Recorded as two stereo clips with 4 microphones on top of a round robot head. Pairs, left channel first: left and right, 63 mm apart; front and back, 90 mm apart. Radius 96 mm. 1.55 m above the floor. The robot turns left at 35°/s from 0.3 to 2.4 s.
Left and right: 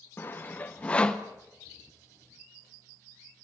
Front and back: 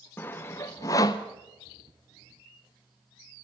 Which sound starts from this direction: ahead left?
Sawing, at 0.2 s.